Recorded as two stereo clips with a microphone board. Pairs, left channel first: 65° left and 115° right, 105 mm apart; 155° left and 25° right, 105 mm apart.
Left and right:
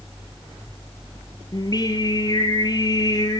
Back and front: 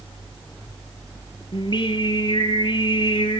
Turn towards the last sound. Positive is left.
turn(degrees=115)